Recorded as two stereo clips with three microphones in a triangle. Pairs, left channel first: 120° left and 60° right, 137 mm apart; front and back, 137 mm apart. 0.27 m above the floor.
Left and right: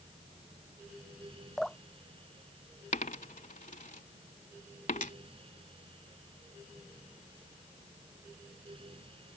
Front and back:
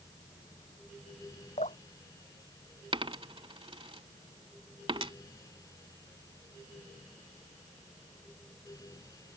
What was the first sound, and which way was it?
Dripping, 30° left.